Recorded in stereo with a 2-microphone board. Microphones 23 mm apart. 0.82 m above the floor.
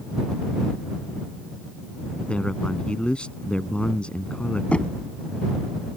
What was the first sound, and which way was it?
A man speaking, 55° left (ahead or behind).